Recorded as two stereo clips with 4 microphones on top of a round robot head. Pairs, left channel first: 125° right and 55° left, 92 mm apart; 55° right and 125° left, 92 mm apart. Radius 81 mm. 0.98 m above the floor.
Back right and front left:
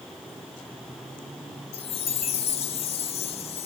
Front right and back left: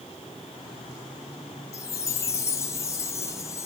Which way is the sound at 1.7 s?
115° right.